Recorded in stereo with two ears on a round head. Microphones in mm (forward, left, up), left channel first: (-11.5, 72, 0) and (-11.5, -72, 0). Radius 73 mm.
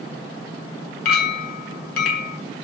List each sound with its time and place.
1.1 s a clink: 65° left (ahead or behind), 1.7 m